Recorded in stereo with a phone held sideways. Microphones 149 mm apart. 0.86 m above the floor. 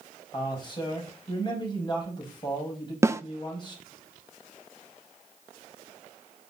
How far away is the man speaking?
About 5 m.